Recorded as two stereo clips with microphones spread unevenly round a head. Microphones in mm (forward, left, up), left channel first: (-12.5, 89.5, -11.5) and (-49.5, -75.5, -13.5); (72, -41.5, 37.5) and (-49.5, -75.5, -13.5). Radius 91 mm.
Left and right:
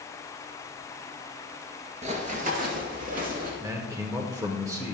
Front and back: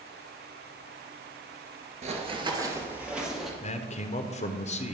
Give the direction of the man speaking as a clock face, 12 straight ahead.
1 o'clock.